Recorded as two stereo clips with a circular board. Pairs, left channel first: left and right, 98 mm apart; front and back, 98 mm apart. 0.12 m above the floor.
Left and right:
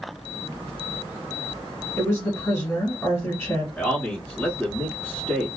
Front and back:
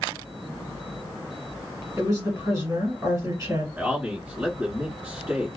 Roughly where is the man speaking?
Behind left.